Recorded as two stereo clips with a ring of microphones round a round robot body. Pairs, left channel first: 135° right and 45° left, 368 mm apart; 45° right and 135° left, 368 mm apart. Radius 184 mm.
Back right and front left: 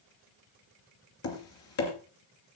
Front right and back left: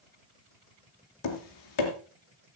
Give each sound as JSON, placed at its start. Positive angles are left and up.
{"t": 1.2, "sound": "tapping", "azimuth_deg": -85, "distance_m": 3.0}